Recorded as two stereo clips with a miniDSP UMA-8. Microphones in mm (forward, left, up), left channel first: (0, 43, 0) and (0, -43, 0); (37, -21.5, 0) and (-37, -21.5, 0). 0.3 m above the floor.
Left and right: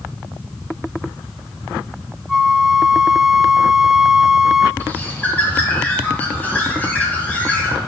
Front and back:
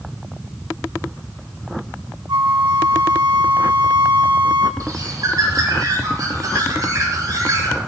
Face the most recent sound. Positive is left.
turn(degrees=155)